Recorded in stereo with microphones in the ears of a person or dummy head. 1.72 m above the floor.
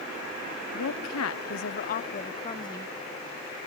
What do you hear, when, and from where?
0.7 s a woman speaking: 80° left; by 2.9 s 20° left (ahead or behind)